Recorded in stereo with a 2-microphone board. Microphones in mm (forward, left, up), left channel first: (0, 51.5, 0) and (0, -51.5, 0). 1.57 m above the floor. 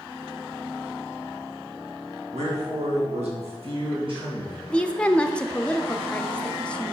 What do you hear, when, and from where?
2.3 s a man speaking: 80° right, 2 m; by 4.6 s 45° right (ahead or behind), 2.5 m
4.7 s a woman speaking: 10° left (ahead or behind), 0.5 m